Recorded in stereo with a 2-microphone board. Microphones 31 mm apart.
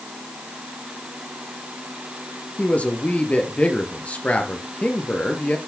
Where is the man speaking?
45° left (ahead or behind), 3 m.